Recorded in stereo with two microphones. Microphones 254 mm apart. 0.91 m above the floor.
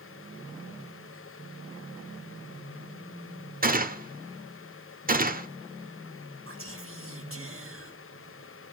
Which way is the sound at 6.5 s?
55° right (ahead or behind).